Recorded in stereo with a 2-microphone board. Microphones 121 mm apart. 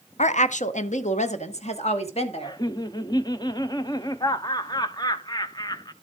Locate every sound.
0.2 s a woman speaking: 70° left (ahead or behind), 0.6 m; by 2.6 s 55° left (ahead or behind), 1.9 m
2.4 s laughter: 35° left (ahead or behind), 0.6 m